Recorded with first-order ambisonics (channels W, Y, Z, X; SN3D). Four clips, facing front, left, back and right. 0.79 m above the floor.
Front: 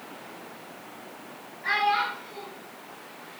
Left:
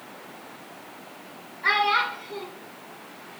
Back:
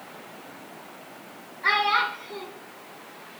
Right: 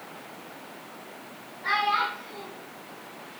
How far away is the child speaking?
About 1.4 m.